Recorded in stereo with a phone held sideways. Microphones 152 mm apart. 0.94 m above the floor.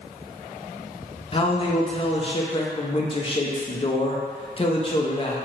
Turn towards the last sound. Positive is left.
turn(degrees=35)  # may be behind; listen again after turning